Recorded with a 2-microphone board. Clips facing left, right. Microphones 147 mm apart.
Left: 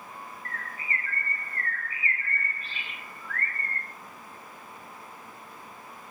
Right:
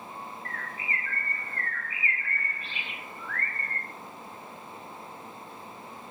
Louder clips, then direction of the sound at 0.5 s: Right 1 dB; 45° left (ahead or behind).